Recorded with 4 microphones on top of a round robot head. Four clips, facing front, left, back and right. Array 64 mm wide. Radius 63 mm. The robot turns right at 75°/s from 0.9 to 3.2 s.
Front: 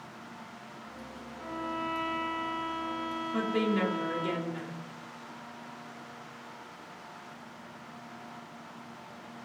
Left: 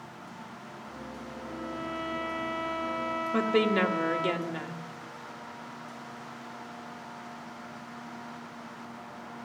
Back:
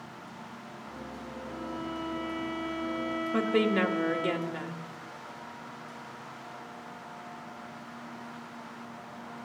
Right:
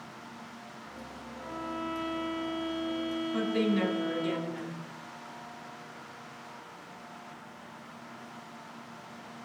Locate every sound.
1.4 s a violin: 30° right, 6 m; by 4.3 s 105° left, 6 m
3.3 s a woman speaking: 120° left, 1.6 m